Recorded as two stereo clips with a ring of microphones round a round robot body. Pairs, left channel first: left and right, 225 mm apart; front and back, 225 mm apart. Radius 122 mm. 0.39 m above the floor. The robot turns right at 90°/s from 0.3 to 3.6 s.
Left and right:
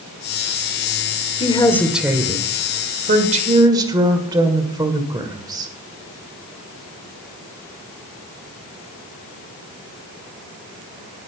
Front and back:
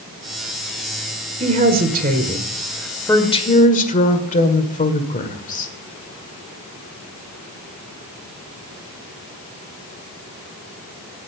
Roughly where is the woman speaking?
Behind left.